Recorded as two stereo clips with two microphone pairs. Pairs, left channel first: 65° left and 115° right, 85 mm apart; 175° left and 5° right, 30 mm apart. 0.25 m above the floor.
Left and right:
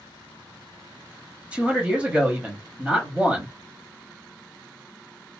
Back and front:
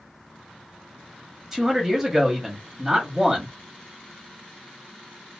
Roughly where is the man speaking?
Ahead right.